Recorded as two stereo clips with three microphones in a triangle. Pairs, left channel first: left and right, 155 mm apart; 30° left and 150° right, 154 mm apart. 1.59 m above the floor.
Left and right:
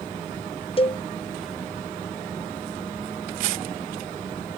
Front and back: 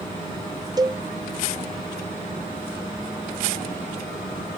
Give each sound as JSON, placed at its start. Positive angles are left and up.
{"t": 0.8, "sound": "a cowbell", "azimuth_deg": 145}